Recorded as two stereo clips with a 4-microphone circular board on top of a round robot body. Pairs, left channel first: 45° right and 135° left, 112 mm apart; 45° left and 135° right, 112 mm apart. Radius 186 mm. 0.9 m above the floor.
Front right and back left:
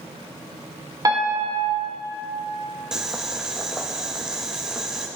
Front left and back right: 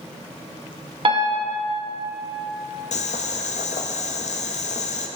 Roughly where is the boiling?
Ahead left.